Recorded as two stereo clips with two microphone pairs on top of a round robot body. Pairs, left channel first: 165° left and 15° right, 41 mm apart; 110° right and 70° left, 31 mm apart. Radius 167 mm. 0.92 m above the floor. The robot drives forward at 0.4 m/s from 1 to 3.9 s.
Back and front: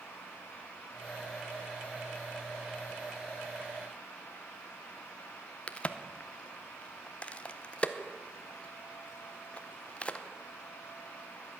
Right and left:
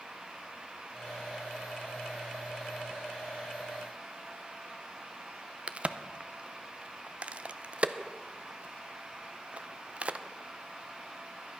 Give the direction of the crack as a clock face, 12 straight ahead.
9 o'clock.